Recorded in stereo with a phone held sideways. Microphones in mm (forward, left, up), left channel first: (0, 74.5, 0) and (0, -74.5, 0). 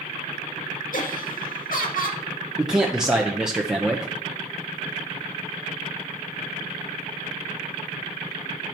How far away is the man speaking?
About 0.8 m.